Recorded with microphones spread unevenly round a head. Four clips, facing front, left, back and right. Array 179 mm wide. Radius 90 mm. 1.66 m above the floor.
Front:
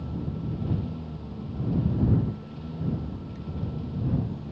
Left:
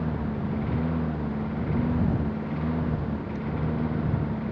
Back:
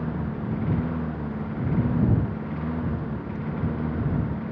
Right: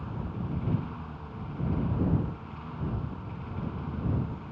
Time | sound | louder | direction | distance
0.0 | a lawn mower | left 8 dB, back 4 dB | 125° left | ?